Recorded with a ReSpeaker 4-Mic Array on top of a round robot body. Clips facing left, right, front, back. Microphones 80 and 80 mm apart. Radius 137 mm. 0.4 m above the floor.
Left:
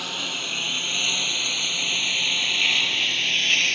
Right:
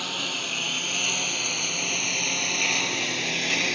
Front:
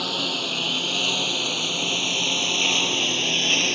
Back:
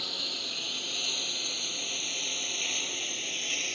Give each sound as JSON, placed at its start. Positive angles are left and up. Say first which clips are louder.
{"t": 0.0, "sound": "a lawn mower", "louder": "even, front 13 dB", "azimuth_deg": 0}